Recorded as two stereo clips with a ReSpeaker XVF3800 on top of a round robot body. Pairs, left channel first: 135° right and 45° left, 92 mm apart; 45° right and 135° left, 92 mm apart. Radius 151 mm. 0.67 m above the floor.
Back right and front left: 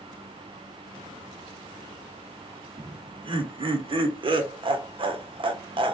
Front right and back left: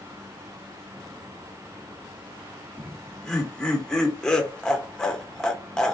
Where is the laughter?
35° left, 1.0 m.